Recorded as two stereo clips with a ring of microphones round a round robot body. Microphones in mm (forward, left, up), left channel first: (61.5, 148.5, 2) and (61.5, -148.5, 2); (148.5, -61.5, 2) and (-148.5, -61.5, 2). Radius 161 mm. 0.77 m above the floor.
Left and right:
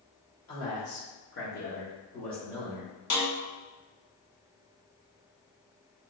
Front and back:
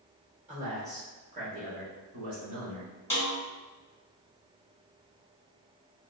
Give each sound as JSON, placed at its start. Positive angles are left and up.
{"t": 0.5, "sound": "a man speaking", "azimuth_deg": 115, "distance_m": 1.7}
{"t": 3.1, "sound": "a snare drum", "azimuth_deg": 80, "distance_m": 1.4}